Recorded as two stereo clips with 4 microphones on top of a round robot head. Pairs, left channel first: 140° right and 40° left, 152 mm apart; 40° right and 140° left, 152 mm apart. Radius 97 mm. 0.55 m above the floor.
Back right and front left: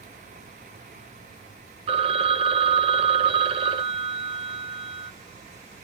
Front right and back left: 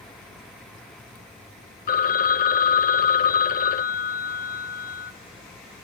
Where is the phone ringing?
10° right, 0.9 m.